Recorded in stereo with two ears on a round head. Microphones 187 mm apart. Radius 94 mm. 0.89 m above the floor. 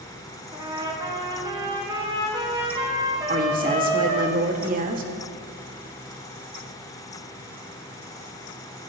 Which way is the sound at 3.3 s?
40° right (ahead or behind).